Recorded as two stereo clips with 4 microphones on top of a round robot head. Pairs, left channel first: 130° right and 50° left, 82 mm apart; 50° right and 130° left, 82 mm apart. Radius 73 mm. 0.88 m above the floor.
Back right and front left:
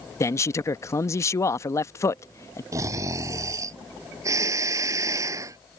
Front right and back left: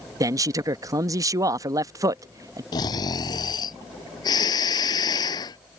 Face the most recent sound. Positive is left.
turn(degrees=-5)